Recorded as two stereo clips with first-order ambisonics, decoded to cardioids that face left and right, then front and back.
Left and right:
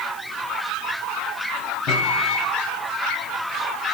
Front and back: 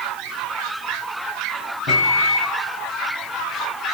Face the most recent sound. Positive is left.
turn(degrees=50)